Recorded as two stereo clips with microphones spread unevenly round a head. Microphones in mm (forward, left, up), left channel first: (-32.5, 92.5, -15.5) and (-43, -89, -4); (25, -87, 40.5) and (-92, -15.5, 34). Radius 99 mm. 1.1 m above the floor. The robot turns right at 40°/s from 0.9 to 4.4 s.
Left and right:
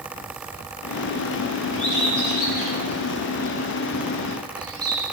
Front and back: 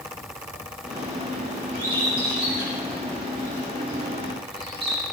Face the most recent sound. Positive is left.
turn(degrees=-160)